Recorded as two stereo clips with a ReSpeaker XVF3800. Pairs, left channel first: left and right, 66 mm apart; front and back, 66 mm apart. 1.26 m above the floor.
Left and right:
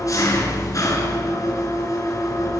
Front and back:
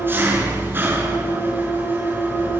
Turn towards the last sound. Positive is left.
turn(degrees=125)